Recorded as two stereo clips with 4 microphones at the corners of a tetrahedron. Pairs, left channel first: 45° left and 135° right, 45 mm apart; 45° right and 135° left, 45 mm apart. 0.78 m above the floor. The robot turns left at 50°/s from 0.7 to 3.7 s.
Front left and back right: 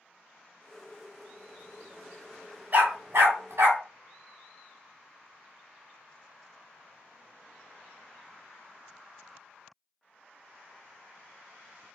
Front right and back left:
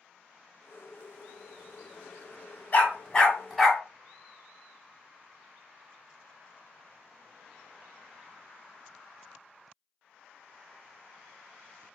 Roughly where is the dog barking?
Right.